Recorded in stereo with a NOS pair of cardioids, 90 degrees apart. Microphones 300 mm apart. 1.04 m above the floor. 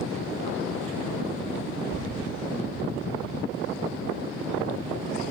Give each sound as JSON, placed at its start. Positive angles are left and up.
{"t": 1.9, "sound": "running footsteps", "azimuth_deg": 30, "distance_m": 4.5}